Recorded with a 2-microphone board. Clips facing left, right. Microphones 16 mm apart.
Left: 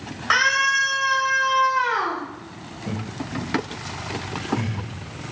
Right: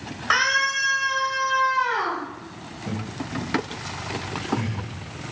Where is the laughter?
20° left (ahead or behind), 1.3 m.